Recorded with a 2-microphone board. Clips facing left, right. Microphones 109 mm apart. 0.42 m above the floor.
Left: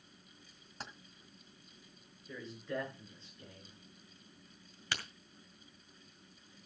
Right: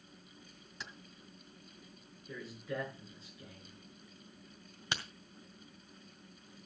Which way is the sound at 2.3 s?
5° right (ahead or behind).